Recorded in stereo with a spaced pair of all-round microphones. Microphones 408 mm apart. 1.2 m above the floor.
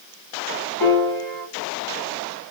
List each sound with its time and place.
0.8 s a piano: 60° left (ahead or behind), 1.3 m